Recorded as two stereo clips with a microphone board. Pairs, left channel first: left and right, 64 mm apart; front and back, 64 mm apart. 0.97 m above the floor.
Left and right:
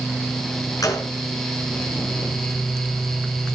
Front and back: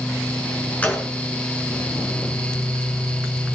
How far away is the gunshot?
About 4.5 m.